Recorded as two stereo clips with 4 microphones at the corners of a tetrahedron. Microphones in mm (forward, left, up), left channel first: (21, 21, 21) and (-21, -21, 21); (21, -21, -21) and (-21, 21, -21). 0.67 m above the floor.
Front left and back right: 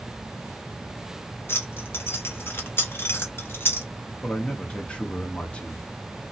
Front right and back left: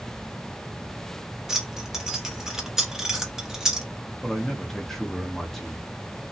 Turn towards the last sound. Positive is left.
turn(degrees=30)